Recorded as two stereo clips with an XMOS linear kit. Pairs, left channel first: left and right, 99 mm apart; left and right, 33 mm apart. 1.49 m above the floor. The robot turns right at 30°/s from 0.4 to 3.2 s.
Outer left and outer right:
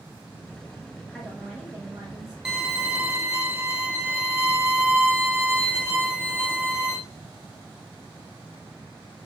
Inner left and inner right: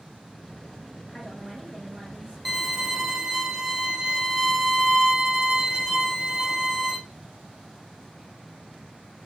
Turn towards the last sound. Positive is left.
turn(degrees=-20)  # may be behind; listen again after turning